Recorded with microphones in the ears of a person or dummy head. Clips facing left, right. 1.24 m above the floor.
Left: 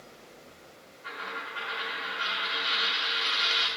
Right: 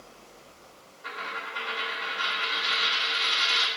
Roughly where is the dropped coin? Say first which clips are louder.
Right 2 dB; right.